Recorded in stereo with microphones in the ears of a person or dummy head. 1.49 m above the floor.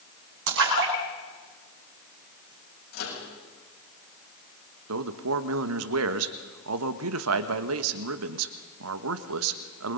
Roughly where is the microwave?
Left.